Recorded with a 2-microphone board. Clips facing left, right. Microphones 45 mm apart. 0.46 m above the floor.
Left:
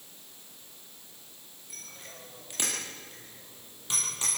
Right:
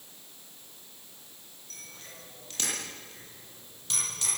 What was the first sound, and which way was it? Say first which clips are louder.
A bicycle bell: left 1 dB; 15° left (ahead or behind).